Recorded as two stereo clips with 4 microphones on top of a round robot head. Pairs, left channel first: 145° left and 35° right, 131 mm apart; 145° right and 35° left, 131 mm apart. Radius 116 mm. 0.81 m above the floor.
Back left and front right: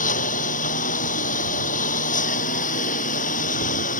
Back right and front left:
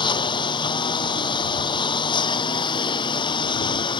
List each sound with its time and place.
0.0 s a lawn mower: 160° left